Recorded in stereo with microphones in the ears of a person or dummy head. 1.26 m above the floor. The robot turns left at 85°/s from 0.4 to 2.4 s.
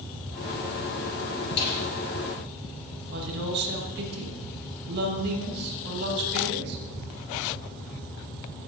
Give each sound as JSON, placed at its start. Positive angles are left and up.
{"t": 1.6, "sound": "a snare drum", "side_deg": 60, "distance_m": 8.5}
{"t": 3.1, "sound": "a woman speaking", "side_deg": -60, "distance_m": 7.0}